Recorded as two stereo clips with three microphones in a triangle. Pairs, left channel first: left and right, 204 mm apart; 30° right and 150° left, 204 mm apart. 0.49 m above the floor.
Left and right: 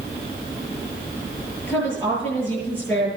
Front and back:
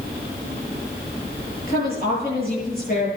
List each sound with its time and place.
1.7 s a woman speaking: 10° left, 9.5 m